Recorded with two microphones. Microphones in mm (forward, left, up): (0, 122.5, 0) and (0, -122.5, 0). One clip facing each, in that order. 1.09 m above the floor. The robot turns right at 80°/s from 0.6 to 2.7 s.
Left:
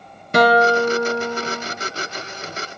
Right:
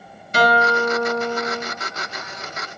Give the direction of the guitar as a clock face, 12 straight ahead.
8 o'clock.